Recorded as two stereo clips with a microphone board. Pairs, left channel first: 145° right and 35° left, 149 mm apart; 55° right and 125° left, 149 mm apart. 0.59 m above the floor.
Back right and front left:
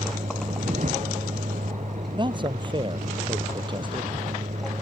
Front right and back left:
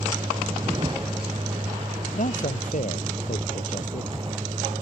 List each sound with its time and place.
0.0 s a vehicle: 65° left; by 4.8 s 70° left
2.1 s a man speaking: 25° right